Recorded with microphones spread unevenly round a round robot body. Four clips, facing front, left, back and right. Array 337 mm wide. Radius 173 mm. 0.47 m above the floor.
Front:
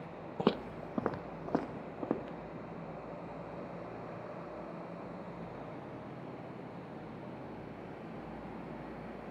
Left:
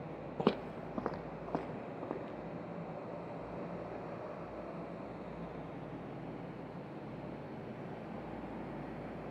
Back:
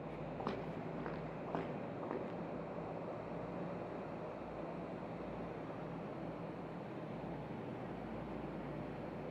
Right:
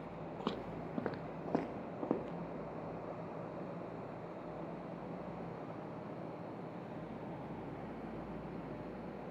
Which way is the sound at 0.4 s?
20° left.